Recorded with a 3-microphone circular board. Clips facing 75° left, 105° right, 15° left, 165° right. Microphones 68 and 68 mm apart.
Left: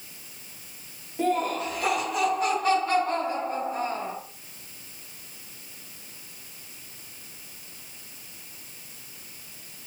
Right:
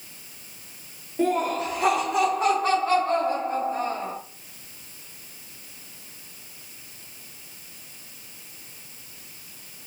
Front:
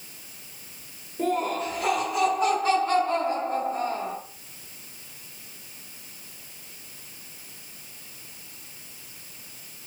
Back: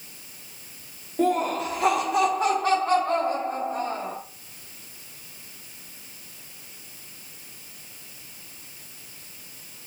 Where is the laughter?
175° left, 0.8 m; by 4.1 s 155° right, 2.5 m.